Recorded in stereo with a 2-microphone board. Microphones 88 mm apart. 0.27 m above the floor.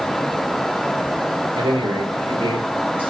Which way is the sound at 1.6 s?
75° right (ahead or behind).